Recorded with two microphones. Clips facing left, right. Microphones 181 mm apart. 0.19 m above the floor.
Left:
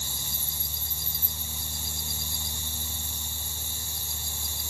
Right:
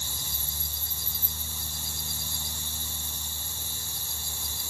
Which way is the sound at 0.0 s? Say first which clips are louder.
Left 1 dB; 45° left (ahead or behind).